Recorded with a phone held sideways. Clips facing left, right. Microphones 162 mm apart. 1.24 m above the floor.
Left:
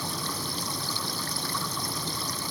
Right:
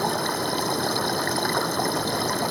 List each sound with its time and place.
0.0 s running water: 70° right (ahead or behind)